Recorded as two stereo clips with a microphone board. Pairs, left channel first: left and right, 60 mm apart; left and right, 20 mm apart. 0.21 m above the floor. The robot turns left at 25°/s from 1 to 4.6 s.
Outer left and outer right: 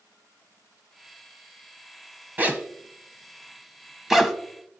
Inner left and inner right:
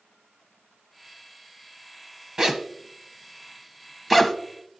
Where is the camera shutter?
I don't hear a camera shutter.